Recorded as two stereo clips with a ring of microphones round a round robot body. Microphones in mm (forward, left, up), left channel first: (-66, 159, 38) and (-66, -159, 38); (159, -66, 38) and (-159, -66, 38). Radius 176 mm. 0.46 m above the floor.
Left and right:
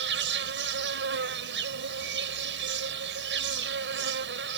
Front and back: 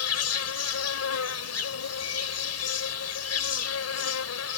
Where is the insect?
35° right.